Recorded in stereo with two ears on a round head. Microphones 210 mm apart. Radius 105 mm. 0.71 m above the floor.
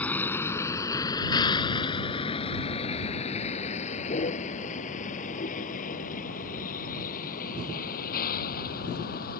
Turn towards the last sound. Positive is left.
turn(degrees=40)  # may be behind; listen again after turning